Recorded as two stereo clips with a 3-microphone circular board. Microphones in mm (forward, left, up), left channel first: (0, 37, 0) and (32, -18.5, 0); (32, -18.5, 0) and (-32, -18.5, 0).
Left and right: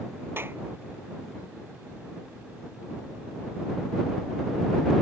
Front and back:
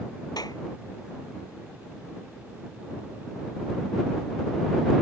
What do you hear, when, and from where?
0.4 s a clap: 5° right